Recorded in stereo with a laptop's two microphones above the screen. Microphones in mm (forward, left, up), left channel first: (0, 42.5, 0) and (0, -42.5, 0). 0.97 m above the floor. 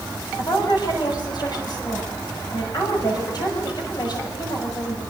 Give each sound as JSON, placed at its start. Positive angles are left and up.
{"t": 0.4, "sound": "a woman speaking", "side_deg": 55, "distance_m": 6.5}